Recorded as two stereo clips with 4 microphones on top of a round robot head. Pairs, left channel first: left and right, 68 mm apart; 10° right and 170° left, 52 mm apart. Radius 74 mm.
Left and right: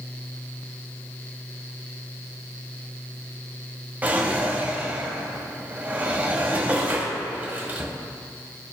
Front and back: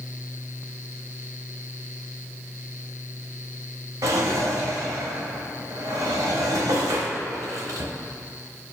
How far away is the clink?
No clink in this recording.